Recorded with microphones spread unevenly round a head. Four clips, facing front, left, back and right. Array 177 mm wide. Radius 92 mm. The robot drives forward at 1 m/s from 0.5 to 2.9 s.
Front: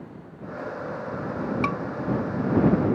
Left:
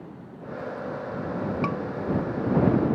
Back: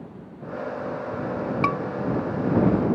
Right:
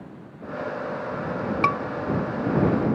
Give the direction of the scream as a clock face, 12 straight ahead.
3 o'clock.